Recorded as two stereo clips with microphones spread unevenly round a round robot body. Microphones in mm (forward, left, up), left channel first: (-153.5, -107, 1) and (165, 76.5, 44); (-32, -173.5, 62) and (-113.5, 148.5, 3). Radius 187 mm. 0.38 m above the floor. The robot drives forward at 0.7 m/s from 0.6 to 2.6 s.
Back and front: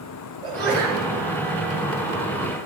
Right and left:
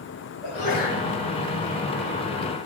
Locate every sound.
0.4 s a sneeze: 50° right, 5.5 m; by 1.1 s 55° right, 5 m